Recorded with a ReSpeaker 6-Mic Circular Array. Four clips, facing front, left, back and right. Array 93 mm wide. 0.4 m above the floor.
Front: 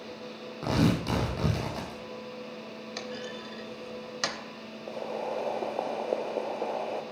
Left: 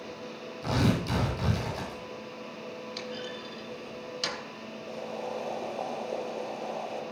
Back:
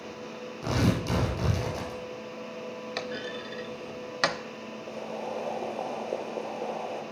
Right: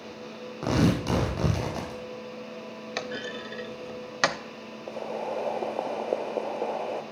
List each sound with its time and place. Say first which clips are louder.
0.6 s tearing paper: right 3 dB, front 1 dB; 70° right, 4 m
3.0 s a clunk: right 8 dB, back 2 dB; 115° right, 0.7 m
4.9 s boiling: right 4 dB, front 2 dB; 65° right, 0.9 m